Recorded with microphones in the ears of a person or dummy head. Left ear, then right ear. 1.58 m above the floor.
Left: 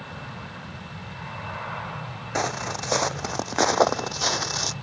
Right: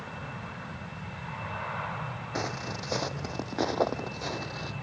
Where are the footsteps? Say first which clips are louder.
Left 8 dB; 35° left (ahead or behind); by 4.7 s 55° left (ahead or behind).